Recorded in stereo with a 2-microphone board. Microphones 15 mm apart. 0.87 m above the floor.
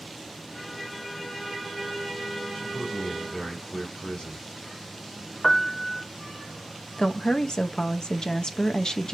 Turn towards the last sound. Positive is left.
turn(degrees=45)  # may be behind; listen again after turning